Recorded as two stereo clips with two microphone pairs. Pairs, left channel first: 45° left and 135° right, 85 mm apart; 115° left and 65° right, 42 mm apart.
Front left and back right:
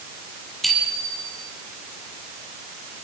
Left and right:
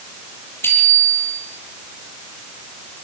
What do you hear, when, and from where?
0.6 s a bicycle bell: 135° left, 9.5 m